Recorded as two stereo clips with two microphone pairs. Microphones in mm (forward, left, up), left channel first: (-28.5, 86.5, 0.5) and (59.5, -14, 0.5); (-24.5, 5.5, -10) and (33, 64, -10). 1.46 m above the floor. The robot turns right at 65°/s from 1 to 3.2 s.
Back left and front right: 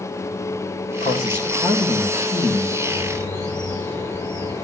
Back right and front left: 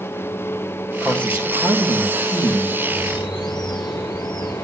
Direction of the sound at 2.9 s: 140° right.